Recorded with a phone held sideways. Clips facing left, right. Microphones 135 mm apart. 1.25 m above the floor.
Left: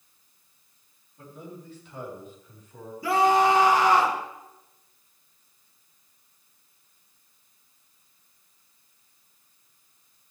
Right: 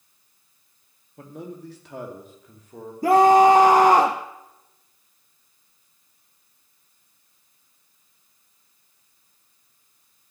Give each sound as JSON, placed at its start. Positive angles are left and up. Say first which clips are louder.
{"t": 1.2, "sound": "a man speaking", "louder": "right 5 dB", "side_deg": -80, "distance_m": 1.7}
{"t": 3.0, "sound": "a scream", "louder": "right 7 dB", "side_deg": -45, "distance_m": 0.7}